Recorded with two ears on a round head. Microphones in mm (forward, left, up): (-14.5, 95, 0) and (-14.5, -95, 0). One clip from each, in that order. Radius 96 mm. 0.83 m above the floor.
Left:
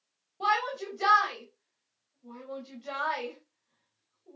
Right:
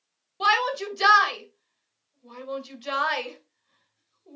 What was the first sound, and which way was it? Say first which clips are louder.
A shout: right 6 dB; 80° right.